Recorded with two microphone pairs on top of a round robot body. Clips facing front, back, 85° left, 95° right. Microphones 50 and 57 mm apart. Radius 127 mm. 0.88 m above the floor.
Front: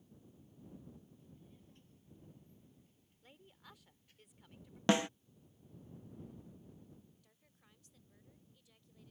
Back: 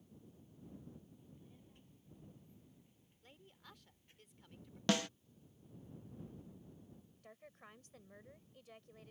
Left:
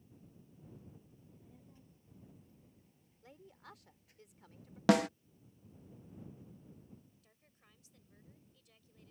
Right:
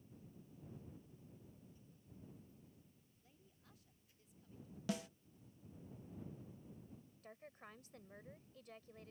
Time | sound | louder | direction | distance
1.2 | a child speaking | even, left 1 dB | 100° left | ?
3.2 | a woman speaking | front 1 dB, left 15 dB | 85° left | ?
4.9 | a snare drum | front 4 dB, left 16 dB | 70° left | ?
7.2 | a woman speaking | back 13 dB, right 13 dB | 135° right | ?